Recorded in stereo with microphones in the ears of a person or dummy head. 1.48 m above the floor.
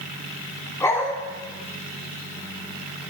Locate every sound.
0.8 s a dog barking: 20° left (ahead or behind), 3 m